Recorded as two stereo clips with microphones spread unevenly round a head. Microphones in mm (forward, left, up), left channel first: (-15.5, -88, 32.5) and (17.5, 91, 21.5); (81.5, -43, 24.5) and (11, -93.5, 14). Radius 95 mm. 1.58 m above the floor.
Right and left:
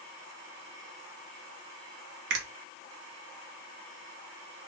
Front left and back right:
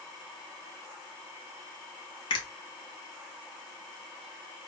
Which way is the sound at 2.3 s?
45° left.